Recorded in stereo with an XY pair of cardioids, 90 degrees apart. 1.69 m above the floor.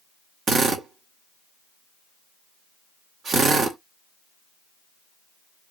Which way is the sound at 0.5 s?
65° right.